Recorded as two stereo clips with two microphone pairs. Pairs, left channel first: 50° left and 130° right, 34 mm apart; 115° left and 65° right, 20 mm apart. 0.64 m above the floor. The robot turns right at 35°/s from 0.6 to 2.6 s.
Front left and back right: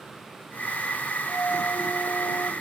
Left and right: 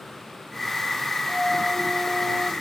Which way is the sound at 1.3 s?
15° left.